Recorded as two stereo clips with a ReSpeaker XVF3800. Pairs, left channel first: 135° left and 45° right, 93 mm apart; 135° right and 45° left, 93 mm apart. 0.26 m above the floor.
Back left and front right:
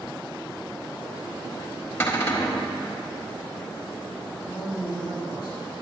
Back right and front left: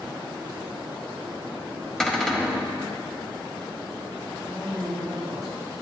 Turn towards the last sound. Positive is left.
turn(degrees=-45)